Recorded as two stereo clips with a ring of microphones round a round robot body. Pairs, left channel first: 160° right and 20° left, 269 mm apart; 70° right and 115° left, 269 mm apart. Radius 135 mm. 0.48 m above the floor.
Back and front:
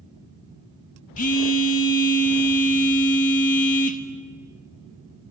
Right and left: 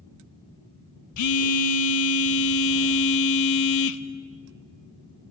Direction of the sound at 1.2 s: 95° right.